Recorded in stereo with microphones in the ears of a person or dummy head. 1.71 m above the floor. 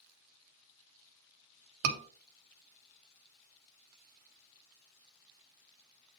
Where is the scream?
70° right (ahead or behind), 1.4 m.